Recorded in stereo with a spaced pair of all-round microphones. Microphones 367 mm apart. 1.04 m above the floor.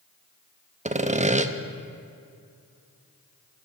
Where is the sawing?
20° right (ahead or behind), 0.5 m.